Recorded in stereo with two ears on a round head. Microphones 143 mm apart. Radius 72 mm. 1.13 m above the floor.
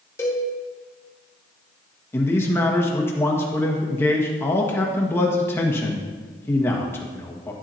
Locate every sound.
0.2 s a cowbell: 15° left (ahead or behind), 2 m
2.1 s a man speaking: 15° left (ahead or behind), 1.6 m